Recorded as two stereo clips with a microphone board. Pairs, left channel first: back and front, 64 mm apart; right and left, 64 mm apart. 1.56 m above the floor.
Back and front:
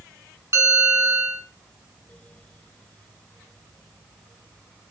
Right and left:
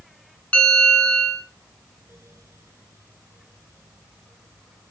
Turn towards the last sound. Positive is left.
turn(degrees=-20)